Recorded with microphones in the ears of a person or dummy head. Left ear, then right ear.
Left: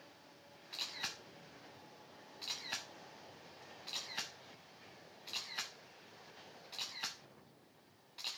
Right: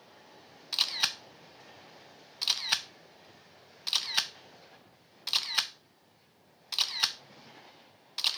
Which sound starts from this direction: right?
A camera shutter, at 0.7 s.